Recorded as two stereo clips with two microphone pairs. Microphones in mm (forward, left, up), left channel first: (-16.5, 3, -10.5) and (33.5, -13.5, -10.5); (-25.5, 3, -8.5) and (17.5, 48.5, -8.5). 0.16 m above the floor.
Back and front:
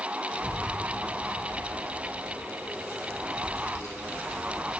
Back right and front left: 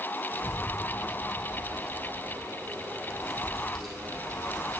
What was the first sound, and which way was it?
A child speaking, 105° left.